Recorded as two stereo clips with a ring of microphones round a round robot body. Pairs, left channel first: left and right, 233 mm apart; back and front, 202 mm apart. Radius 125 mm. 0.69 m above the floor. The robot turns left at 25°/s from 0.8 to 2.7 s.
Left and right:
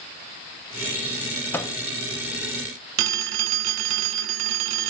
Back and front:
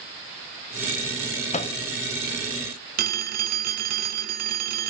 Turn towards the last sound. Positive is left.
turn(degrees=-50)